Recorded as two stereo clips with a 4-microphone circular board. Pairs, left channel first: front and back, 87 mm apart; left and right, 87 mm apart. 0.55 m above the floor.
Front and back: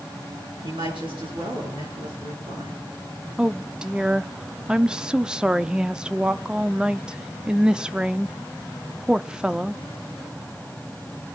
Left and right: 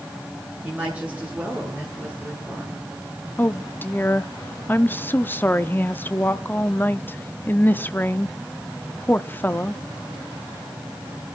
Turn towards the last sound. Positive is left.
turn(degrees=115)